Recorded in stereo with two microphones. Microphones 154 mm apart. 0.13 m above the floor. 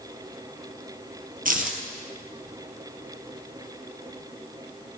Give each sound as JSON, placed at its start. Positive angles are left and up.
{"t": 1.4, "sound": "keys jangling", "side_deg": -65, "distance_m": 2.0}